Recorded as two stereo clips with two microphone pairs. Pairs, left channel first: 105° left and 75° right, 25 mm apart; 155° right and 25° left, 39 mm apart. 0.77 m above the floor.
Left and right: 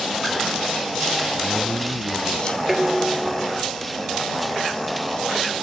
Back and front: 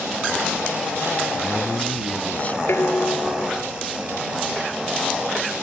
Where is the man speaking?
150° left; by 2.6 s 160° left.